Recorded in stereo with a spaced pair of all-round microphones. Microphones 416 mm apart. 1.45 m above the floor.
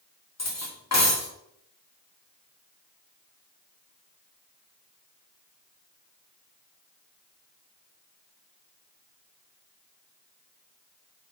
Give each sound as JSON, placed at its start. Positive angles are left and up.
{"t": 0.4, "sound": "cutlery clinking", "side_deg": 40, "distance_m": 1.7}